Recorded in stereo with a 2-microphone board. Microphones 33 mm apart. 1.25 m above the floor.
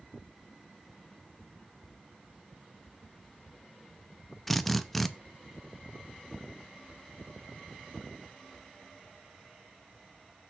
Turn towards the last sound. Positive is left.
turn(degrees=5)  # may be behind; listen again after turning